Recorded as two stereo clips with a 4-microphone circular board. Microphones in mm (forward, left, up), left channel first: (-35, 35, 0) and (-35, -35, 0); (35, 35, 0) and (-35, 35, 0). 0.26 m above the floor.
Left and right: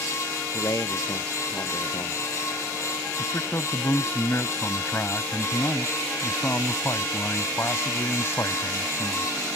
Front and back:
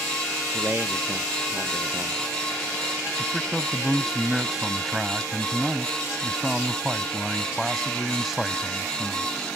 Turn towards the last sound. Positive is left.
turn(degrees=95)